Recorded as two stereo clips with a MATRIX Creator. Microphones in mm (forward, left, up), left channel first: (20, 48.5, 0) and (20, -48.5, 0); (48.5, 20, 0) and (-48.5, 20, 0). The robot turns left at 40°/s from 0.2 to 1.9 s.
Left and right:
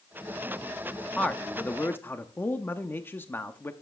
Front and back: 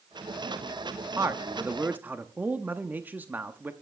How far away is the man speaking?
About 0.6 m.